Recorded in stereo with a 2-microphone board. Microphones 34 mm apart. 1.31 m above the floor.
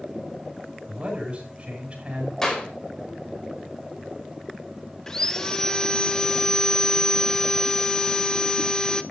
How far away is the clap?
About 5 m.